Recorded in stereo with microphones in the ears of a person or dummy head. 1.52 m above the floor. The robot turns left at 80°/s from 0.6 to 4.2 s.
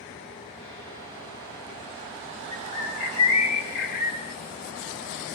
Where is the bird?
165° left, 1.1 m; by 4.3 s 30° left, 1.1 m.